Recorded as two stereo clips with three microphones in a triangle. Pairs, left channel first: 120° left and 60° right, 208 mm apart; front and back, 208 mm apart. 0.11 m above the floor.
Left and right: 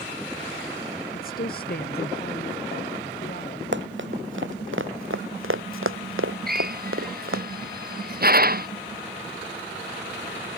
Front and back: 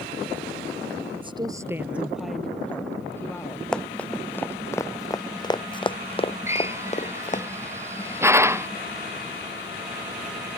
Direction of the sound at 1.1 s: 130° left.